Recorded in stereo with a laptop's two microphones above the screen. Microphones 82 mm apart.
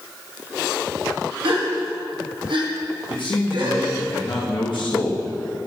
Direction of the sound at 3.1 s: 75° left (ahead or behind).